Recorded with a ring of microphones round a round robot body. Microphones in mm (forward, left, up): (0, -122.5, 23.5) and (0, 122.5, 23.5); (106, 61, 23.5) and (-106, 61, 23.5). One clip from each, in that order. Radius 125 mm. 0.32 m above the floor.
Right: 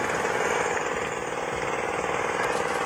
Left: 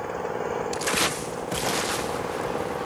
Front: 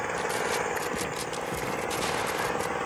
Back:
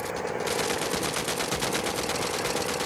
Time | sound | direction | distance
0.0 | an engine running | 65° right | ?